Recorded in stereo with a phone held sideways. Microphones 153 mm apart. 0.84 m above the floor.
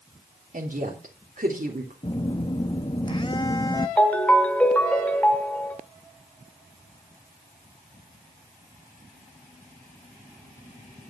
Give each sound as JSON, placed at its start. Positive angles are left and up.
{"t": 0.5, "sound": "a woman speaking", "side_deg": -60, "distance_m": 3.0}
{"t": 2.0, "sound": "a phone buzzing", "side_deg": 30, "distance_m": 0.7}
{"t": 4.0, "sound": "a ringtone", "side_deg": 10, "distance_m": 1.7}